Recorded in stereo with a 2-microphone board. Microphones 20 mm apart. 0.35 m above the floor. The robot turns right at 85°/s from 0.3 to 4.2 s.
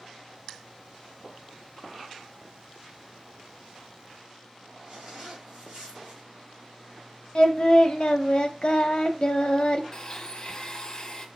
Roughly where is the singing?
Left.